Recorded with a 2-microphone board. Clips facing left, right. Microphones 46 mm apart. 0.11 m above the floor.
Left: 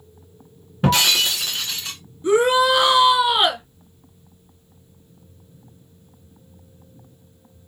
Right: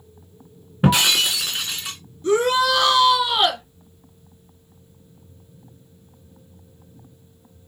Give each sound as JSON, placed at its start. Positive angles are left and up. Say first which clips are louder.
{"t": 0.8, "sound": "breaking glass", "louder": "even", "side_deg": -15, "distance_m": 2.0}
{"t": 2.2, "sound": "a shout", "louder": "left 2 dB", "side_deg": 20, "distance_m": 1.1}